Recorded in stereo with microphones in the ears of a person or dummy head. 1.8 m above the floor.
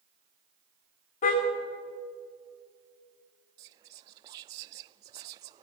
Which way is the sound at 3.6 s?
25° right (ahead or behind).